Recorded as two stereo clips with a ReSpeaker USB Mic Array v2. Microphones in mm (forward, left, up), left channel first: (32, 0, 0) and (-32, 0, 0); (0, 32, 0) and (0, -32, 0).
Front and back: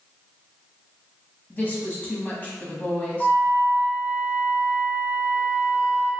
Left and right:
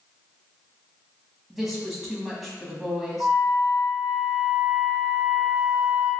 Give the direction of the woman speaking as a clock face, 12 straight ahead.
12 o'clock.